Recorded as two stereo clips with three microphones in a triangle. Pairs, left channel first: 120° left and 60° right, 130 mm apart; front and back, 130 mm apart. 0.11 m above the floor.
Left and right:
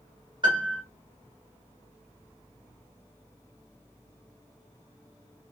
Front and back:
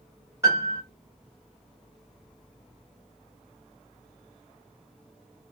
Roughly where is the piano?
Behind right.